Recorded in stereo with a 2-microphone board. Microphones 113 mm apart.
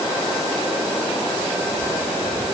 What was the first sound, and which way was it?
Only background noise.